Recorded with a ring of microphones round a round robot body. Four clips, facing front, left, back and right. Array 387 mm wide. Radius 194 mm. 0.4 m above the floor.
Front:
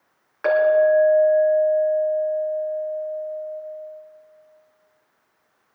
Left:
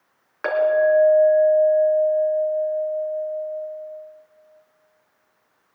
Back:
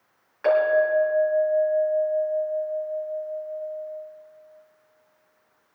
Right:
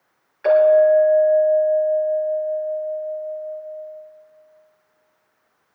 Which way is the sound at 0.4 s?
65° left.